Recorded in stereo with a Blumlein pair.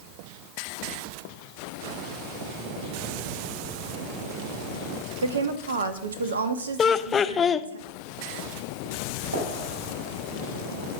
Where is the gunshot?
65° right, 4.5 m.